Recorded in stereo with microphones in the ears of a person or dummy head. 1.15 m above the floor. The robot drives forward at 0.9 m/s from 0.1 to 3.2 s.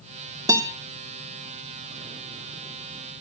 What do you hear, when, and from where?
0.5 s a guitar: 15° right (ahead or behind), 1.0 m